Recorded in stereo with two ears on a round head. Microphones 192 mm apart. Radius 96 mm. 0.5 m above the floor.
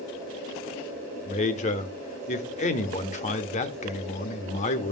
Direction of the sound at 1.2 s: 35° left (ahead or behind).